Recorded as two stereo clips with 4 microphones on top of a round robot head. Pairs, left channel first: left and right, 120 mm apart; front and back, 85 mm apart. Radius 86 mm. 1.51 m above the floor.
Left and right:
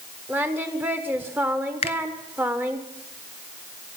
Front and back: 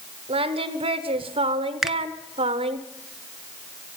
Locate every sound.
0.3 s singing: 165° right, 1.1 m
1.8 s a finger snap: 95° left, 0.7 m